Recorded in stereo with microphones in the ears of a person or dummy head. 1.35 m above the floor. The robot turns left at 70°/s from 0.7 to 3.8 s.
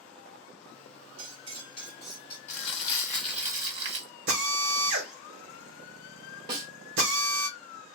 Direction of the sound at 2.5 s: 60° left.